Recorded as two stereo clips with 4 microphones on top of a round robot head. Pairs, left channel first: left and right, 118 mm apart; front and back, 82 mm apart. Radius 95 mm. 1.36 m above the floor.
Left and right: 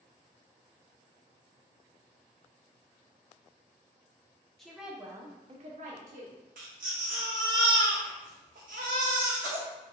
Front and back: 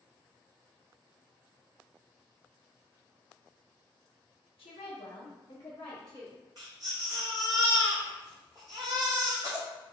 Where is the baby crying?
115° right, 0.5 m.